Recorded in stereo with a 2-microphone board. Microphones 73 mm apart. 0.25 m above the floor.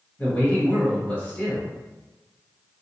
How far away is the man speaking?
About 1.2 m.